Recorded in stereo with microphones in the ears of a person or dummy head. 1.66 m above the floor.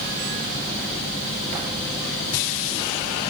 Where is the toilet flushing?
I don't hear a toilet flushing.